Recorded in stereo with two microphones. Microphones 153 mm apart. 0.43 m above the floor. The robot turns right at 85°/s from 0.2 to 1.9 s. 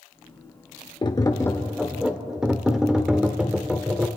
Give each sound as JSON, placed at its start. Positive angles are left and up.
{"t": 1.0, "sound": "tapping", "azimuth_deg": 110, "distance_m": 1.2}